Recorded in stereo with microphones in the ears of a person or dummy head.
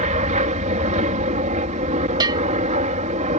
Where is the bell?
20° right (ahead or behind).